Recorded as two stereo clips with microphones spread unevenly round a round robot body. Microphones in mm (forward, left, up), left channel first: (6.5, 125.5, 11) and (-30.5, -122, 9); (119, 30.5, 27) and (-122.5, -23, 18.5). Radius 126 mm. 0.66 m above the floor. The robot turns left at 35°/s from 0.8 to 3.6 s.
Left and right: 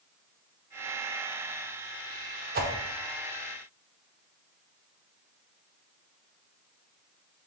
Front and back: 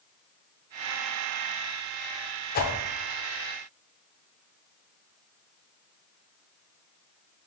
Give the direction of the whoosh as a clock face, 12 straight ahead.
1 o'clock.